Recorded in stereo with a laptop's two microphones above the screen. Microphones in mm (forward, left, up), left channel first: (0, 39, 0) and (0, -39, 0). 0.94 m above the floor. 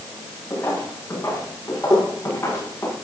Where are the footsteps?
25° left (ahead or behind), 8.5 m.